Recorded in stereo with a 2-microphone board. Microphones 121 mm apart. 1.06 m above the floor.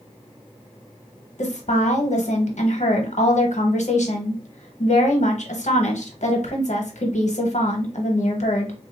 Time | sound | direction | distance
1.4 | a woman speaking | 70° left (ahead or behind) | 1.0 m